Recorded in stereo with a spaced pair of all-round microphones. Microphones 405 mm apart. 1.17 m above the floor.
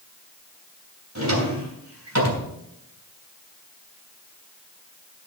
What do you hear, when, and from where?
1.1 s a drawer: 40° right (ahead or behind), 3 m